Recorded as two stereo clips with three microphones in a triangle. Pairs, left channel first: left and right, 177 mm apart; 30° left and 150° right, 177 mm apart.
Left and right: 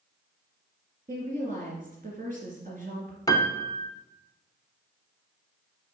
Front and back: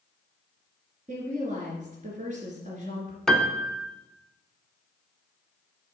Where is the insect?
I don't hear an insect.